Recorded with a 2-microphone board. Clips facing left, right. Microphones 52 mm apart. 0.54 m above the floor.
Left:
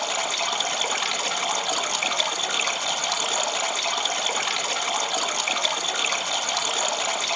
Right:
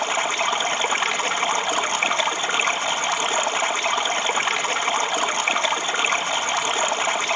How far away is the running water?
About 1.8 m.